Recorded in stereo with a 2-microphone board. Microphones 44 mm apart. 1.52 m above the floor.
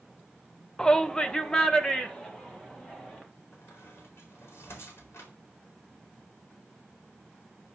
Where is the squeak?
80° left, 4 m.